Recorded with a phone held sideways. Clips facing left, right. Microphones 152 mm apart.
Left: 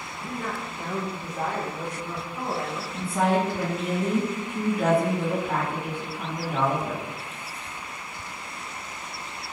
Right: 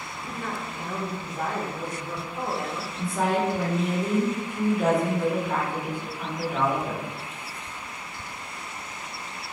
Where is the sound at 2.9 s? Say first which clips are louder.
Left 2 dB; 55° left (ahead or behind), 1.7 m.